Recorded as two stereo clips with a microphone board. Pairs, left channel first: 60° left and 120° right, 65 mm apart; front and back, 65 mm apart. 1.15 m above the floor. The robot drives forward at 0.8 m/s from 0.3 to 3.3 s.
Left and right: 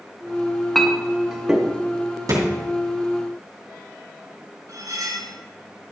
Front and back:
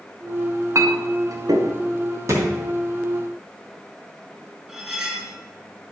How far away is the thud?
About 2.5 m.